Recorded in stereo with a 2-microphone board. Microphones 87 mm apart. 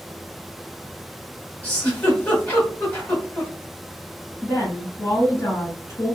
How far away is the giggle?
About 1.6 m.